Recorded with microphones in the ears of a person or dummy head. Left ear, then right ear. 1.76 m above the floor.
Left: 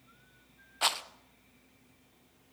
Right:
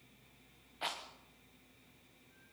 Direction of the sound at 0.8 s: 45° left (ahead or behind).